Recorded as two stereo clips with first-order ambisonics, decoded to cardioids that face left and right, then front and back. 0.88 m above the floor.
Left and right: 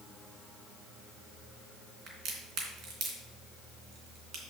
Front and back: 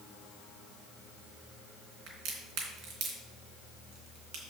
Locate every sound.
2.1 s a crack: 130° right, 3 m